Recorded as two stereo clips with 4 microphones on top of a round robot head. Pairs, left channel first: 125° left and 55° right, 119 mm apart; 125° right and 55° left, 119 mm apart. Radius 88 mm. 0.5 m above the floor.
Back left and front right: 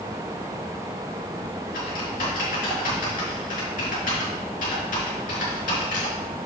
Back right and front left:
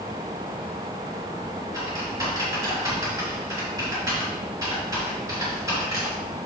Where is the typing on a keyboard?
120° left, 4 m.